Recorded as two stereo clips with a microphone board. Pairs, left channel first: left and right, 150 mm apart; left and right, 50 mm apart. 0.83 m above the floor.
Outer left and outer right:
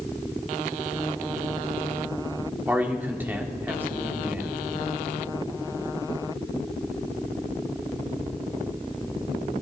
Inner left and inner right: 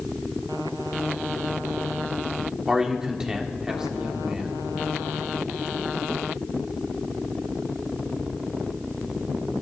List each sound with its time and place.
2.7 s a man speaking: 15° right (ahead or behind), 1.6 m